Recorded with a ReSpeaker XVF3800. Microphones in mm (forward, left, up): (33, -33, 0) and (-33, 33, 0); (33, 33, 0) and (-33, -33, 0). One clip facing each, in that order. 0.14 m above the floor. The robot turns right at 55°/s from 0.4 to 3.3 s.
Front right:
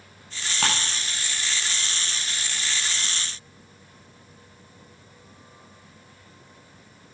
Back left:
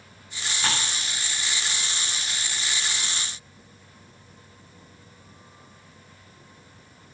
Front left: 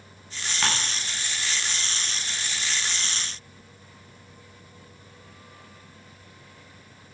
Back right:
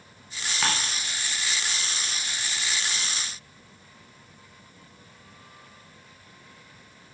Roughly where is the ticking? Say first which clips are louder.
Front right 2 dB, even; ahead right.